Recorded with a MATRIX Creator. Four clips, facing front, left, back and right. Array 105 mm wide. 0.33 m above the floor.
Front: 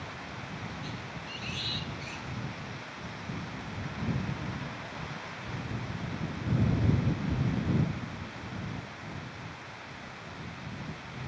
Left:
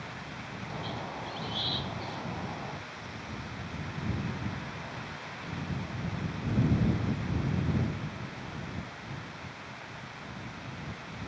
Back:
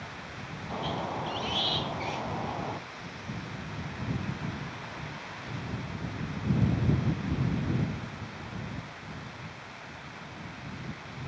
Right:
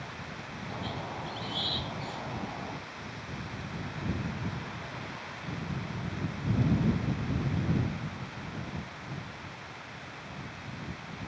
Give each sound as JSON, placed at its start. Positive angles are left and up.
{"t": 0.7, "sound": "a squeak", "azimuth_deg": 180}